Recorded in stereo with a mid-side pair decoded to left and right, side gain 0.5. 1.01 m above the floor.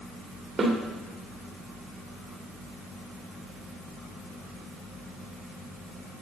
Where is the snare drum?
30° right, 2.0 m.